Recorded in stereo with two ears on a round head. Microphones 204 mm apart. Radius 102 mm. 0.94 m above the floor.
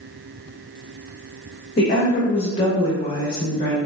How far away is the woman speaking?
About 0.8 m.